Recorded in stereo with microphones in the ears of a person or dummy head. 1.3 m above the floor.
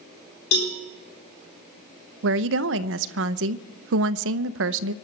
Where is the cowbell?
65° left (ahead or behind), 3.5 m.